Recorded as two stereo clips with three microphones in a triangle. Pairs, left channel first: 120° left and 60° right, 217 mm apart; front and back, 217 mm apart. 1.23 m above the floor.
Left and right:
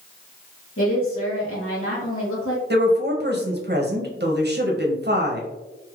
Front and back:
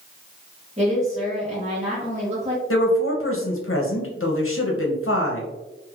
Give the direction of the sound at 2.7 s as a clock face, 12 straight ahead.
1 o'clock.